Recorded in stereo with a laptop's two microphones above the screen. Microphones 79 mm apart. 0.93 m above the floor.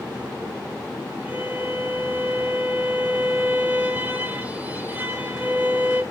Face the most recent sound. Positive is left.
turn(degrees=-25)  # may be behind; listen again after turning